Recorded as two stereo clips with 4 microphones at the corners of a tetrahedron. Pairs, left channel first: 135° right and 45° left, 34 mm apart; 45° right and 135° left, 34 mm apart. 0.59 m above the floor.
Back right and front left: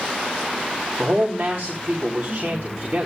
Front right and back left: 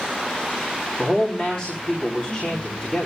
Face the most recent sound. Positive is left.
turn(degrees=15)